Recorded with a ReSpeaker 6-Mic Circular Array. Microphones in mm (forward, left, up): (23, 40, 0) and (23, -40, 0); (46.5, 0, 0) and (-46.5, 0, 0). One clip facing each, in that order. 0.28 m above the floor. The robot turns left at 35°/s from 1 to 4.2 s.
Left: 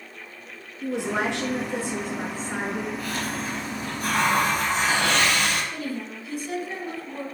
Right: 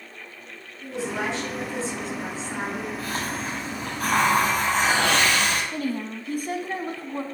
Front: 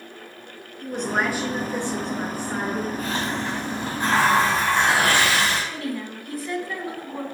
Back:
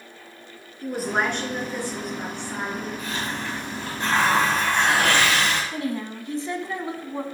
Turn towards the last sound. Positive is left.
turn(degrees=-120)